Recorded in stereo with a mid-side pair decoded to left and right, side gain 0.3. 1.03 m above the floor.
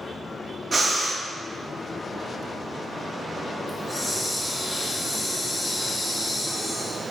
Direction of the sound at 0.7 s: 55° right.